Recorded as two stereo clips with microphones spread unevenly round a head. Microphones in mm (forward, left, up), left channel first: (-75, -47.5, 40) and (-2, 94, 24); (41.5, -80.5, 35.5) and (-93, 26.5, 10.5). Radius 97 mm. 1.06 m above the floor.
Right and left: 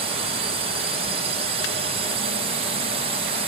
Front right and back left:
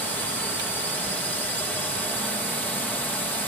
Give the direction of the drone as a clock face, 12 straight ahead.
10 o'clock.